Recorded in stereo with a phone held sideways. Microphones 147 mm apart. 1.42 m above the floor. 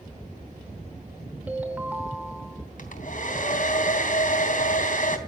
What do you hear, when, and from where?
1.5 s a ringtone: 10° right (ahead or behind), 3 m
2.8 s a hair dryer: 60° left (ahead or behind), 3 m